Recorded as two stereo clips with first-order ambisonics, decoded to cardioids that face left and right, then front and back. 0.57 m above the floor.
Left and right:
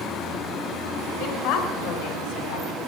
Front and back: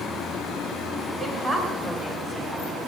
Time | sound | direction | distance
1.2 | a woman speaking | 110° left | 2.5 m